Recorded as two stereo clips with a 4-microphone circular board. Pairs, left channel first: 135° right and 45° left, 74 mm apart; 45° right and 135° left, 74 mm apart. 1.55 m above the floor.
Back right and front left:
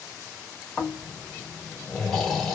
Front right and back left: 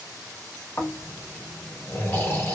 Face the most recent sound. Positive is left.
turn(degrees=-50)